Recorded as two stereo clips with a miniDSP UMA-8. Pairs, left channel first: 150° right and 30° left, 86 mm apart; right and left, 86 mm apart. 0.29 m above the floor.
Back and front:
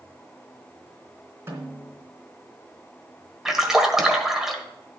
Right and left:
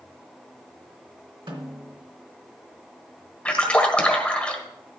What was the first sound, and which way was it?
A snare drum, 85° left.